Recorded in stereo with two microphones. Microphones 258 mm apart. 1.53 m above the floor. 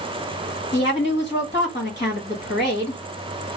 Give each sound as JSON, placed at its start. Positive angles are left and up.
{"t": 0.7, "sound": "a woman speaking", "side_deg": 45, "distance_m": 1.8}